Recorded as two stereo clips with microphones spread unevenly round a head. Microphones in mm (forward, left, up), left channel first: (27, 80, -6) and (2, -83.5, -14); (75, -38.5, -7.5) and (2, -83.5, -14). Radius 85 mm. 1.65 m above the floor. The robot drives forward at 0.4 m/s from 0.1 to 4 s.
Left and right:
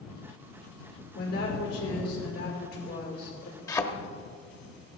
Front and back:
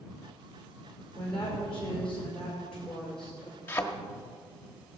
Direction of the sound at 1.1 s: 110° left.